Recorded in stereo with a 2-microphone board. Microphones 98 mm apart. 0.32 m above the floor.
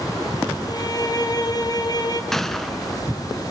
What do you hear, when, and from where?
0.7 s a violin: 45° left (ahead or behind), 2.5 m
2.3 s a gunshot: centre (ahead or behind), 0.8 m